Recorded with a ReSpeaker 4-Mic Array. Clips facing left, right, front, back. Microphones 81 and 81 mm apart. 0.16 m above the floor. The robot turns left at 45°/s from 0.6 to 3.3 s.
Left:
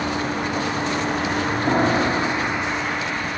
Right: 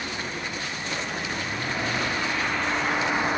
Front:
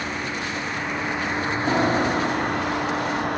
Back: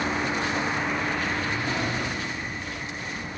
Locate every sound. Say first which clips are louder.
0.0 s a vehicle: left 9 dB, back 2 dB; 100° left; by 3.4 s 20° right
1.7 s a piano: left 10 dB, front 8 dB; 55° left; by 2.8 s 5° left